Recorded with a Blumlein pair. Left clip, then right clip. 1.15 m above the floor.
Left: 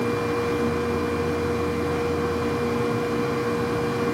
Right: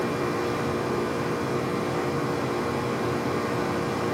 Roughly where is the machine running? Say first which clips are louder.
Left 3 dB; ahead left.